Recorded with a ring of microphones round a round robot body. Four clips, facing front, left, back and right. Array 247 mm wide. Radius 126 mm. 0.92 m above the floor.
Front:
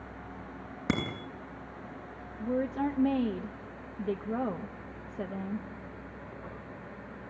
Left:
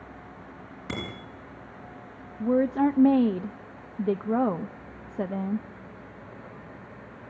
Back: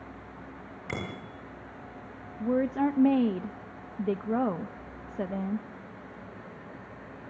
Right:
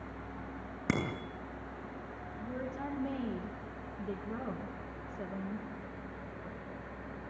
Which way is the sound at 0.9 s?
35° right.